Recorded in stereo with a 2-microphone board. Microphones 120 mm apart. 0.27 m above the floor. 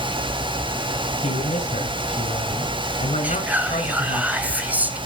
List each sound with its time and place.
1.2 s a man speaking: 70° left (ahead or behind), 4 m
3.2 s whispering: 10° right (ahead or behind), 1.1 m